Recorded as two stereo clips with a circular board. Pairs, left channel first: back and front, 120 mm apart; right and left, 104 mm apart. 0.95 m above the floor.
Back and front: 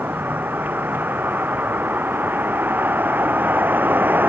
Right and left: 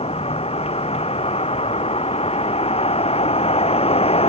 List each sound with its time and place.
0.0 s a vehicle: 75° right